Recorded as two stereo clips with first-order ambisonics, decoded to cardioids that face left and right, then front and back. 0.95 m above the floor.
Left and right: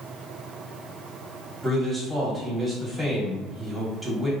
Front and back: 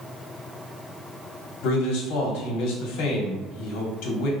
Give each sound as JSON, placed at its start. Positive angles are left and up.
{"t": 1.6, "sound": "a man speaking", "azimuth_deg": -10, "distance_m": 1.9}